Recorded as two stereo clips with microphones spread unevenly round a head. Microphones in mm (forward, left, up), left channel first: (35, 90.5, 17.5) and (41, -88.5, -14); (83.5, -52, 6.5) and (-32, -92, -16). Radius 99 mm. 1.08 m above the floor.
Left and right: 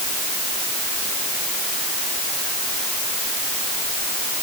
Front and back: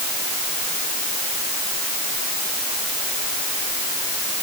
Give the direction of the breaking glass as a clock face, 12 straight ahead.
I don't hear breaking glass.